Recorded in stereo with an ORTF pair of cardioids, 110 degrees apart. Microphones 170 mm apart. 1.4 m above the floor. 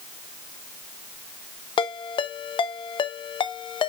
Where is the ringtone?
35° left, 0.7 m.